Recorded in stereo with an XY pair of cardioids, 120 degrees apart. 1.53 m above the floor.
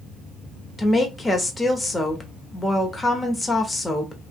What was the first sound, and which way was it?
A woman speaking, 20° left.